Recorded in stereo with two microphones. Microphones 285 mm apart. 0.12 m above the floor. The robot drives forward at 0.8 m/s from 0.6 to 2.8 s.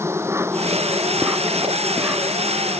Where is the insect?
10° right (ahead or behind); by 2.8 s 5° right (ahead or behind).